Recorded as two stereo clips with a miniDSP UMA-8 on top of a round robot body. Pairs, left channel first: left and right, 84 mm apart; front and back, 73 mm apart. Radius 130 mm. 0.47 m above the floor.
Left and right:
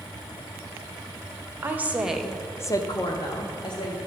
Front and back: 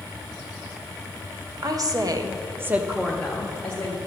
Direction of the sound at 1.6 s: 155° right.